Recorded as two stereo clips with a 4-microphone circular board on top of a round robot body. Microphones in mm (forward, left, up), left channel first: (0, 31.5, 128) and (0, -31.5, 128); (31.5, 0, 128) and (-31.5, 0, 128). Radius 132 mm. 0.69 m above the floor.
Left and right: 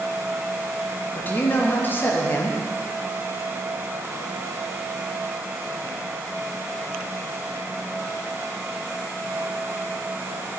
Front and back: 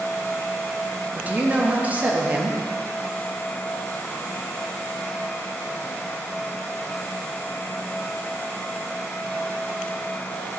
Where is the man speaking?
130° left, 1.0 m.